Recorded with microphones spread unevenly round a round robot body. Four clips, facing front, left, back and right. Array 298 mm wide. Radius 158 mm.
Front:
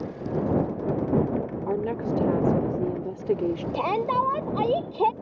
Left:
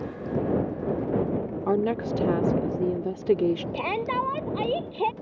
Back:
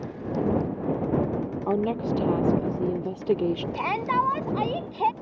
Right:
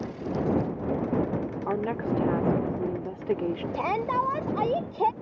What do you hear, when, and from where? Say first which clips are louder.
1.7 s a woman speaking: left 4 dB, back 3 dB; 95° left
3.7 s a shout: right 1 dB, front 3 dB; 10° left